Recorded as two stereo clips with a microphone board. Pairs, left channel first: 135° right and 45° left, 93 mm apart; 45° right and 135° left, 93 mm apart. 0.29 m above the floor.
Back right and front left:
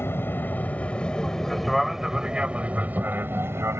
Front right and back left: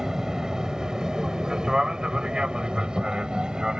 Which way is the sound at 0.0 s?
150° right.